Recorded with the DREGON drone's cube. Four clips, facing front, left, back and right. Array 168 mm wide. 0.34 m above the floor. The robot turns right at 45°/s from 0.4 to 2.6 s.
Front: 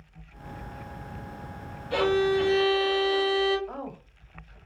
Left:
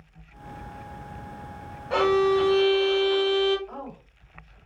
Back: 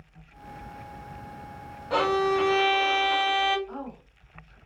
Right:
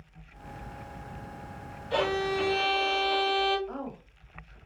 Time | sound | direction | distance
1.9 | a violin | 130° left | 0.5 m
3.7 | a woman speaking | 15° right | 1.3 m